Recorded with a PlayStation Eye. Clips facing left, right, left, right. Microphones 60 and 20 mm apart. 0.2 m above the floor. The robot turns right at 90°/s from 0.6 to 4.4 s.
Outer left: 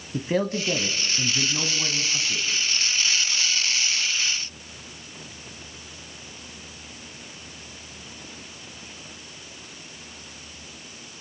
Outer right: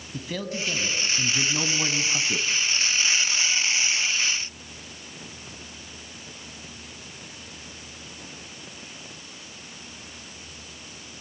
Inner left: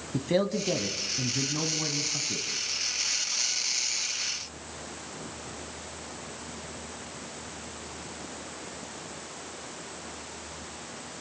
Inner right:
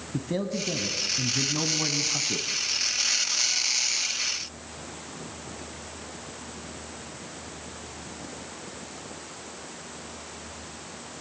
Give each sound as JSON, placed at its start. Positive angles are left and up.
{"t": 0.1, "sound": "a man speaking", "azimuth_deg": 110, "distance_m": 1.4}